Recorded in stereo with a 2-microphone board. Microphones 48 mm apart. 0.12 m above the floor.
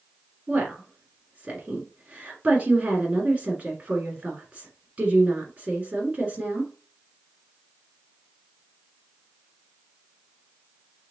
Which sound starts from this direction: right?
A woman speaking, at 0.5 s.